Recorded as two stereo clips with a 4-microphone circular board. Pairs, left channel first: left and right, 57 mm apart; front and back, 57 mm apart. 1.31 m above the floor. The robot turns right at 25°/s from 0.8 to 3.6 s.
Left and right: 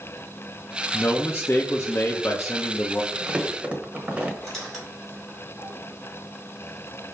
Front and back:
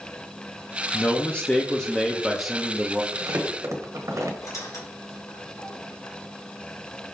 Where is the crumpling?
170° right, 0.9 m; by 4.3 s 160° right, 0.9 m.